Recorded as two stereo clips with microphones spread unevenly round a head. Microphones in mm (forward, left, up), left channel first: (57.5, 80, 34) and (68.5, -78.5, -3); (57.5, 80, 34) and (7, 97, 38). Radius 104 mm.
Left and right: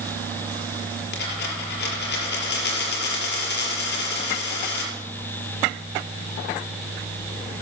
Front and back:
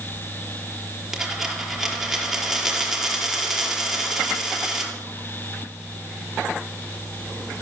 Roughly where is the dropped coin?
Left.